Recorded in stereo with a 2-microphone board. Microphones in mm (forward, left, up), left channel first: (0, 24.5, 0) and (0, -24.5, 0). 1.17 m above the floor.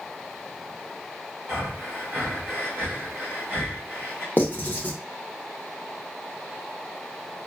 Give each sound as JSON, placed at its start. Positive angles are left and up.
{"t": 1.5, "sound": "breathing", "side_deg": -45, "distance_m": 1.0}
{"t": 4.4, "sound": "writing", "side_deg": 40, "distance_m": 0.7}